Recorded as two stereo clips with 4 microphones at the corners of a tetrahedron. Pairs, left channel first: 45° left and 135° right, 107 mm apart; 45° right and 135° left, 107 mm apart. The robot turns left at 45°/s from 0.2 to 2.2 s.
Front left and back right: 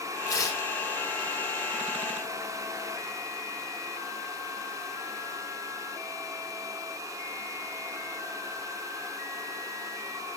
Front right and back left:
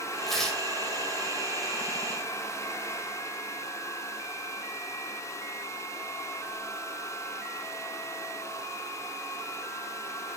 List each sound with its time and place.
0.3 s tearing paper: 45° left, 0.7 m; by 0.7 s 25° left, 0.7 m